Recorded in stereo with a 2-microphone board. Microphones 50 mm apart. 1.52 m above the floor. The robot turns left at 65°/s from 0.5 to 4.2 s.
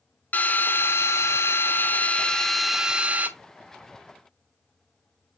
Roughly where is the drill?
Behind left.